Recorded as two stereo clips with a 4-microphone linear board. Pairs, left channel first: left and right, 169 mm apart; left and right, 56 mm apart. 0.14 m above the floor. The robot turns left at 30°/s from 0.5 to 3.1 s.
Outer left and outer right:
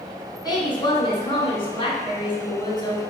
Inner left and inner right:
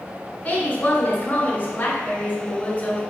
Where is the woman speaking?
125° left, 1.3 m; by 3.0 s 50° left, 1.3 m.